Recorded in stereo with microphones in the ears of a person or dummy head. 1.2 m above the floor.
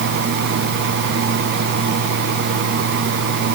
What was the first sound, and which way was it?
Only background noise.